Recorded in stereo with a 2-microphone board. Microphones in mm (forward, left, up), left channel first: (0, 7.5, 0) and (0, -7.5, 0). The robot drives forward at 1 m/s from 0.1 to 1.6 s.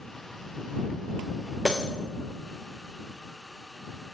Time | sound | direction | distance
1.6 | breaking glass | 25° right (ahead or behind) | 3.5 m